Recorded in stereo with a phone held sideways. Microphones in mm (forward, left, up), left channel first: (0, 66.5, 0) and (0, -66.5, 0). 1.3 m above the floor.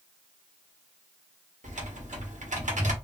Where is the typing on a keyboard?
75° right (ahead or behind), 1.1 m.